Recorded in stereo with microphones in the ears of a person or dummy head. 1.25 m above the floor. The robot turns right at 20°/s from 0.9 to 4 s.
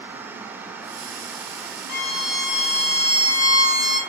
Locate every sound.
1.9 s a violin: 65° left, 1.6 m; by 4.0 s 105° left, 1.6 m